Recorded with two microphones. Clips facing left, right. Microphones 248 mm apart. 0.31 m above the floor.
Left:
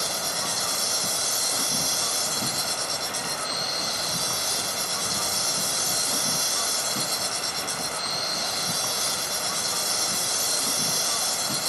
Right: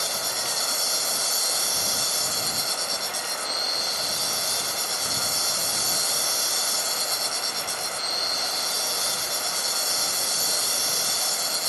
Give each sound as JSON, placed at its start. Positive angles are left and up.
{"t": 0.0, "sound": "an insect", "side_deg": 65}